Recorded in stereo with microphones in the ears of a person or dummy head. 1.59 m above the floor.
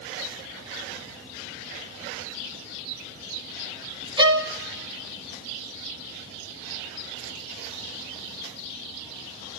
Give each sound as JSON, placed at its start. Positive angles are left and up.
{"t": 4.2, "sound": "a violin", "side_deg": -20, "distance_m": 1.1}